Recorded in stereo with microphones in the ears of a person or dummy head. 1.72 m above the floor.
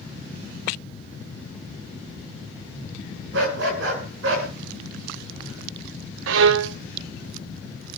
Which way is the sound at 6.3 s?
70° right (ahead or behind).